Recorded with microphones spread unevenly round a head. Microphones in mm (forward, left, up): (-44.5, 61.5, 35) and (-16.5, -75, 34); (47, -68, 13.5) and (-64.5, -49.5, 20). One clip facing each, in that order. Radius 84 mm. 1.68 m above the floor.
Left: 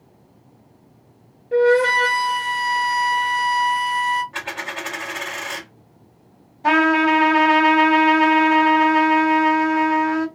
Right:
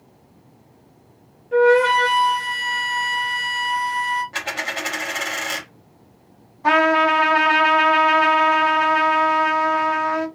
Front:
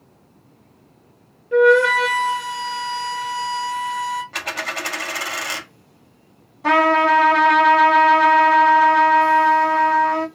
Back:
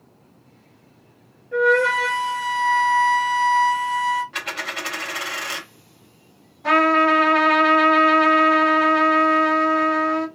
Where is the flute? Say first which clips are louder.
Right 1 dB, front 5 dB; 35° left, 2.5 m.